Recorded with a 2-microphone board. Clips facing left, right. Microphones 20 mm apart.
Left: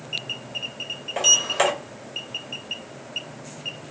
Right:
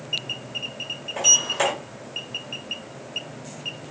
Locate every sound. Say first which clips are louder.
1.2 s a sliding door: even; 35° left (ahead or behind), 1.6 m